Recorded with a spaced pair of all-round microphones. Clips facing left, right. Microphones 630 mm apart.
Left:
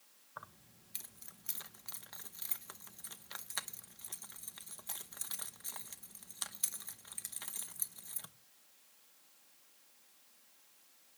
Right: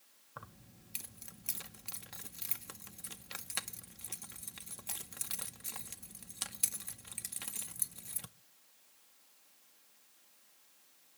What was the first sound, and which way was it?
Keys jangling, 55° right (ahead or behind).